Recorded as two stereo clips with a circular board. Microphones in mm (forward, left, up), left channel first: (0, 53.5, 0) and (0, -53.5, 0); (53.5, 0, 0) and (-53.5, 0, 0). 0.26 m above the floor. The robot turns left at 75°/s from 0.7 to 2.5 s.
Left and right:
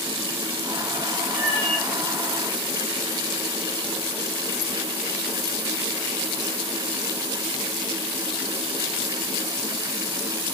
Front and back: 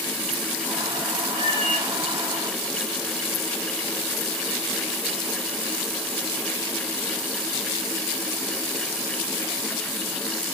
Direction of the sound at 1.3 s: 15° left.